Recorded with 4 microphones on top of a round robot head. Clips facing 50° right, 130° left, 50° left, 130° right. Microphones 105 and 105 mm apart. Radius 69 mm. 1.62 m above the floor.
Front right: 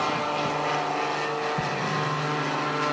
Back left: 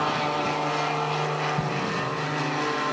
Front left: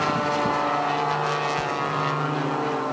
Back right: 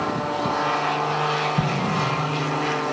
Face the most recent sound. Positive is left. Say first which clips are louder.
# even, back right 2 dB
turn(degrees=-145)